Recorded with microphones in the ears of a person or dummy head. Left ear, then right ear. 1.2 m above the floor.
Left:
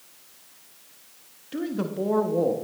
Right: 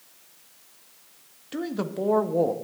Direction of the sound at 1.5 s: 20° right (ahead or behind).